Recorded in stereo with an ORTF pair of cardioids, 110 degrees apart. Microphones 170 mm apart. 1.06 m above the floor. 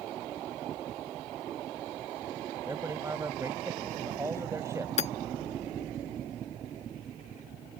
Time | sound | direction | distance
2.6 | a man speaking | 15° right | ?
5.0 | hammering | 40° left | ?